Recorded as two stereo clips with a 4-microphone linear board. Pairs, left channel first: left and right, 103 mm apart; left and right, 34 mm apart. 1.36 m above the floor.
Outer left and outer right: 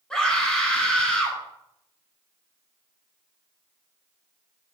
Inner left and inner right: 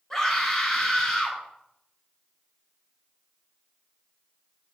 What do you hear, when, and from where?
0.1 s a scream: 10° left (ahead or behind), 9 m